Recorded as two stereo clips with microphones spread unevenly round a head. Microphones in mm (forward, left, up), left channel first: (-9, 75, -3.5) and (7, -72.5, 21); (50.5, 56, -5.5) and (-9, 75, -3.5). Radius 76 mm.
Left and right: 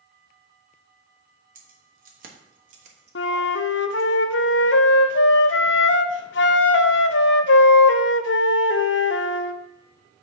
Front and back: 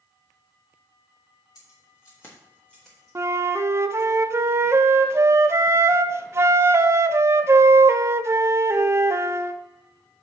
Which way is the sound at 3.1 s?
115° left.